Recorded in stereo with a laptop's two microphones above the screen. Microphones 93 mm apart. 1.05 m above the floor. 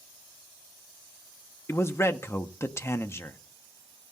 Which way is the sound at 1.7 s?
30° left (ahead or behind).